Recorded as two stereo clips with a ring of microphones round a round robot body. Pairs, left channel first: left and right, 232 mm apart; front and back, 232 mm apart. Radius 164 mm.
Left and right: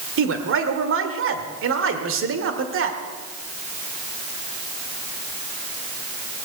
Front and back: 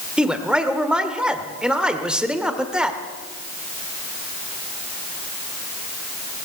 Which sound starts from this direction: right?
A man speaking, at 0.2 s.